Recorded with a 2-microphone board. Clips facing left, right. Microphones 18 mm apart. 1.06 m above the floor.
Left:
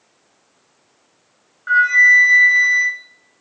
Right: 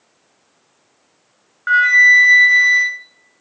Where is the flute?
50° right (ahead or behind), 0.5 m.